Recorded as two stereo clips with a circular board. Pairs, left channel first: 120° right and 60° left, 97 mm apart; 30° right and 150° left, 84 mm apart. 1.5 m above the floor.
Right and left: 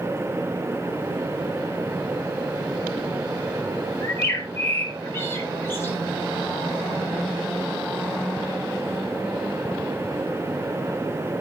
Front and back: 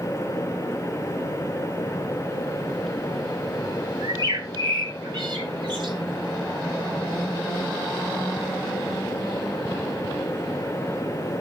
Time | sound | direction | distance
4.0 | a bird | 175° left | 2 m